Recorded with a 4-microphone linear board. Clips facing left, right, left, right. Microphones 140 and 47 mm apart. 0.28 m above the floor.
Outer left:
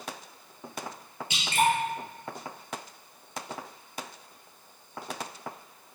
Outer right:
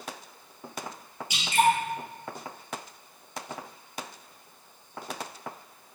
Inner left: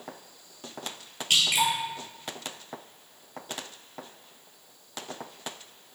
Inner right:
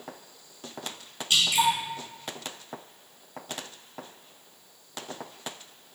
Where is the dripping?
65° left (ahead or behind), 1.1 m.